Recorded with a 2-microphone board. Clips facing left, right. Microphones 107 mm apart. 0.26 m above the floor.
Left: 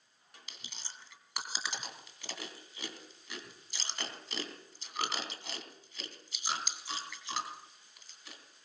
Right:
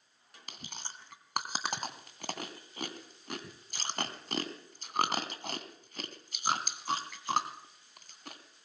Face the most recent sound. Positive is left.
turn(degrees=-50)  # may be behind; listen again after turning